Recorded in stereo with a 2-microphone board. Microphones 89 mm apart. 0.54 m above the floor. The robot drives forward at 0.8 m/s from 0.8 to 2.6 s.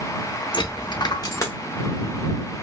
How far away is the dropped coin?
About 0.5 m.